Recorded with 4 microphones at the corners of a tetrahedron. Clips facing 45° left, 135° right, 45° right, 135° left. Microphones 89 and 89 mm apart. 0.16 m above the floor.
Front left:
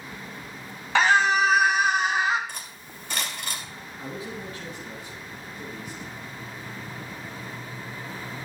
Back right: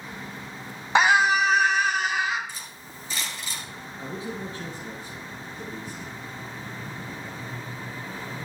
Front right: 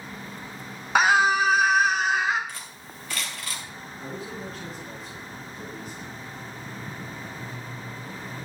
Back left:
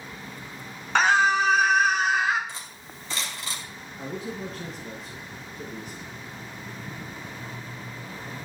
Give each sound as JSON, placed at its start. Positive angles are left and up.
{"t": 0.9, "sound": "a scream", "azimuth_deg": -110, "distance_m": 1.1}
{"t": 2.5, "sound": "cutlery clinking", "azimuth_deg": 70, "distance_m": 1.9}
{"t": 4.0, "sound": "a man speaking", "azimuth_deg": 170, "distance_m": 2.5}